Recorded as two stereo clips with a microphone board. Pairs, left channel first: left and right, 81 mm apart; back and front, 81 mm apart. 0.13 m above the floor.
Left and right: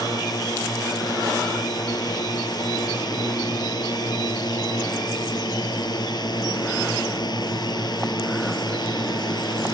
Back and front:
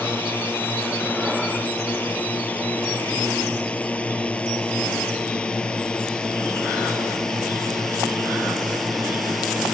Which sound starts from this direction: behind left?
A drone, at 0.0 s.